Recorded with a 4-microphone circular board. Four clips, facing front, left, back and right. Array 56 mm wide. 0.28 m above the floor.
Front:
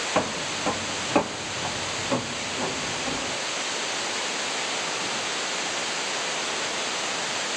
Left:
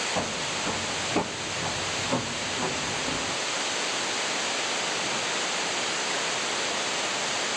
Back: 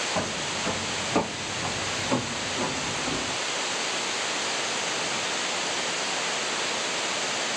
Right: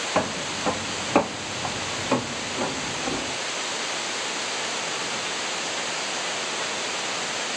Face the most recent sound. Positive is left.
turn(degrees=-100)